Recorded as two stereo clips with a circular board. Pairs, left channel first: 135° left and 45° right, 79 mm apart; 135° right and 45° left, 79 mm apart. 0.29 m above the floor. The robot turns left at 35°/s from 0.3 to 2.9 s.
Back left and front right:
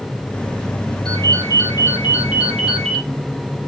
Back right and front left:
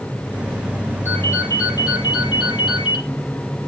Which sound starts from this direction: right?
A ringtone, at 1.1 s.